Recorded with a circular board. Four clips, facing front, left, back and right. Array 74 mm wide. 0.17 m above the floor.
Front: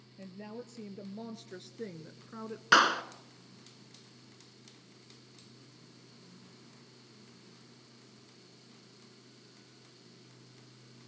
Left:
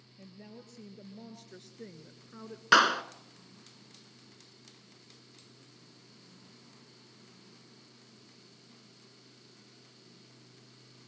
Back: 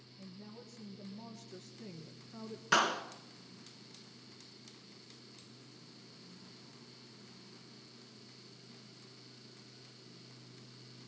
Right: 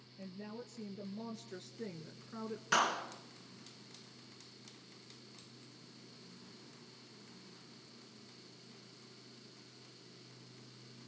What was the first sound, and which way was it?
A woman speaking, 5° right.